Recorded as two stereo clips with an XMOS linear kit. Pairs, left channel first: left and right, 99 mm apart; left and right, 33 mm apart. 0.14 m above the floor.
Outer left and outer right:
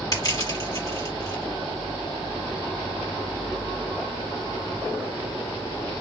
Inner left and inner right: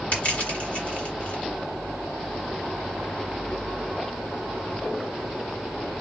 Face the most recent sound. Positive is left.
turn(degrees=45)  # may be behind; listen again after turning